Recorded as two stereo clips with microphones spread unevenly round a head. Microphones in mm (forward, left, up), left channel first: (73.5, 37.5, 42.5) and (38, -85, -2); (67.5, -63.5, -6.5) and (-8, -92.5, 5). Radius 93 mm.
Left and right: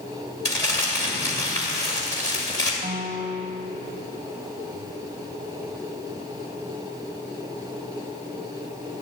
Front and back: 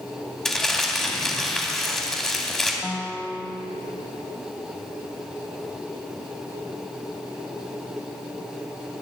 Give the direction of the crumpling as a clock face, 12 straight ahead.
8 o'clock.